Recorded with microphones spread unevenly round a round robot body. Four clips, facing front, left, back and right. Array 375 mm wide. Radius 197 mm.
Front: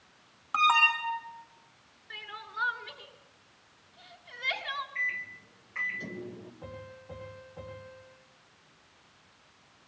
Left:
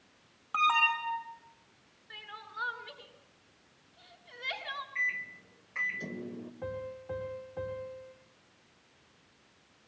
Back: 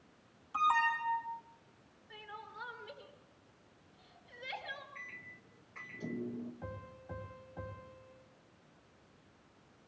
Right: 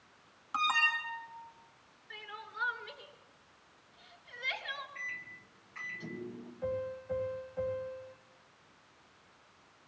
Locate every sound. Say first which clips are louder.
0.5 s an alarm: left 4 dB, front 5 dB; 20° left, 4 m
2.1 s crying: left 1 dB, front 6 dB; 20° left, 6.5 m
5.0 s a microwave: left 8 dB, front 14 dB; 55° left, 3 m
6.6 s a piano: right 4 dB, front 3 dB; 95° left, 8.5 m